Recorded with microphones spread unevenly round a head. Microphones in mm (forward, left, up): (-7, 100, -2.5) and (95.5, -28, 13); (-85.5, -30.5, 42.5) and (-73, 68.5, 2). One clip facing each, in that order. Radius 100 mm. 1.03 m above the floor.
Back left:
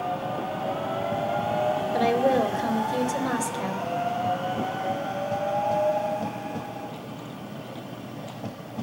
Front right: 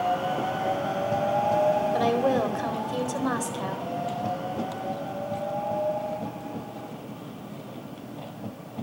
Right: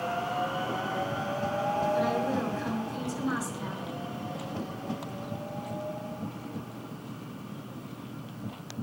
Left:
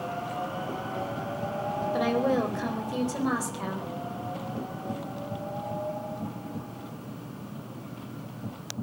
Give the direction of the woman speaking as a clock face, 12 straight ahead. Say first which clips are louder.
Back left 1 dB, left 3 dB; 10 o'clock.